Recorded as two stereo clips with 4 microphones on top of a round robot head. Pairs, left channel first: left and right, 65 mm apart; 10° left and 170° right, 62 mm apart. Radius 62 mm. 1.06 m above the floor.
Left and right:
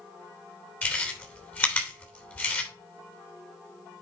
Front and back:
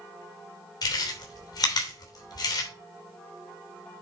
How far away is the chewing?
About 3 m.